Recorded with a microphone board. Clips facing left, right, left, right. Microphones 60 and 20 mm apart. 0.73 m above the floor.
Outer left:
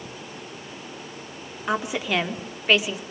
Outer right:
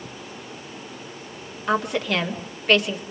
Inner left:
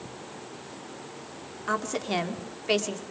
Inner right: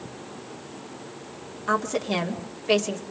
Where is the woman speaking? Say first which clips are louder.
Outer right 2 dB, inner right 4 dB; 5° left (ahead or behind), 2.0 m.